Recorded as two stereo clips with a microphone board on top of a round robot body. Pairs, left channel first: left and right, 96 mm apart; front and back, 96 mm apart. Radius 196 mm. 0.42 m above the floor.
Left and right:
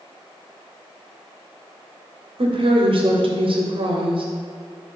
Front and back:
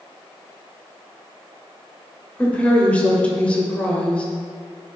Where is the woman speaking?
75° right, 3 m.